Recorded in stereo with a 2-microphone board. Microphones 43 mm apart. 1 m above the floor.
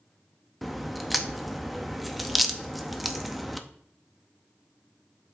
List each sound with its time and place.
0.6 s a crack: centre (ahead or behind), 0.5 m